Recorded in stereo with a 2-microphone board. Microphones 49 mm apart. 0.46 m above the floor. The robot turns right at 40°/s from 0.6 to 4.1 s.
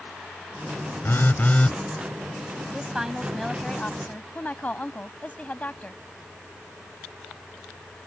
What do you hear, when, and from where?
1.0 s a phone buzzing: 55° left (ahead or behind); by 1.8 s 25° left (ahead or behind)
2.7 s a woman speaking: 20° right; by 6.0 s 35° left